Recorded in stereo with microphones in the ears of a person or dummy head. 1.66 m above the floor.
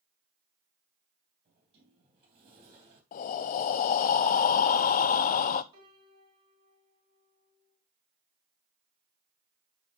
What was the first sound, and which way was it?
A sliding door, 35° right (ahead or behind).